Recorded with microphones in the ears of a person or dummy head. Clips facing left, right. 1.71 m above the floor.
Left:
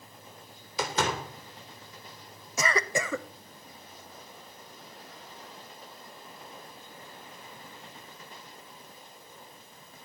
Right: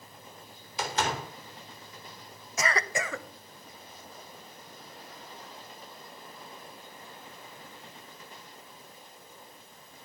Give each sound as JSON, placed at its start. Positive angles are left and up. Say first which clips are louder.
{"t": 0.8, "sound": "a door slam", "louder": "left 1 dB", "side_deg": 70, "distance_m": 3.5}
{"t": 2.6, "sound": "a cough", "louder": "left 2 dB", "side_deg": 85, "distance_m": 1.0}